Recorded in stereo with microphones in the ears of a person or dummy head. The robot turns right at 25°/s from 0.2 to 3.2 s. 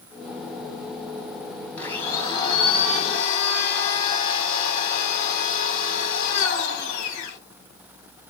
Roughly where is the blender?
Ahead.